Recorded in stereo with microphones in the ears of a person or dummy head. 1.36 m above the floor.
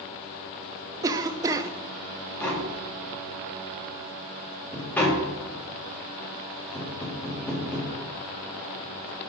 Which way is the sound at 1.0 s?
15° right (ahead or behind).